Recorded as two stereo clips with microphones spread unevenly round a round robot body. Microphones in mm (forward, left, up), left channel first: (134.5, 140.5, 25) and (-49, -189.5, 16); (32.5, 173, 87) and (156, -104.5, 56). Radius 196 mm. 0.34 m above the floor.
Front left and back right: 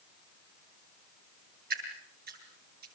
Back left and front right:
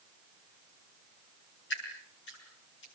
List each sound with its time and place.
1.7 s dripping: 175° left, 7.5 m